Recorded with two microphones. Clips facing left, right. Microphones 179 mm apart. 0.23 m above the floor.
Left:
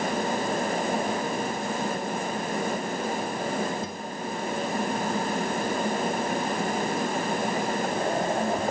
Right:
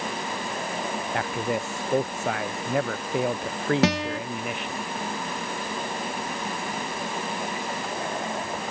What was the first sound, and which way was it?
A man speaking, 75° right (ahead or behind).